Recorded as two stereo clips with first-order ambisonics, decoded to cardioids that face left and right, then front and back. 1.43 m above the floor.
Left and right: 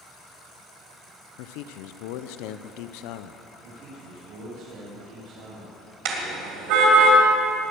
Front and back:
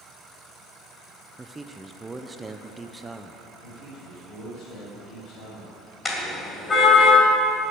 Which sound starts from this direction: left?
A man speaking, at 1.4 s.